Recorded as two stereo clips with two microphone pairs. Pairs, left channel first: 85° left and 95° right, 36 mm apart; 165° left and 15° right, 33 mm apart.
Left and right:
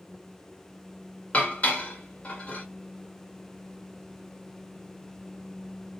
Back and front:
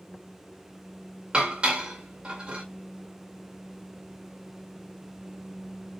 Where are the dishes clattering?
40° left, 1.6 m.